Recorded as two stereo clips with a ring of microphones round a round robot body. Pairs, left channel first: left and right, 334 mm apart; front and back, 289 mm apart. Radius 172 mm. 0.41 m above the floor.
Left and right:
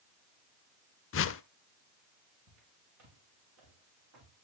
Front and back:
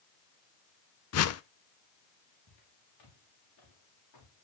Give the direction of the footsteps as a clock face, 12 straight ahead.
1 o'clock.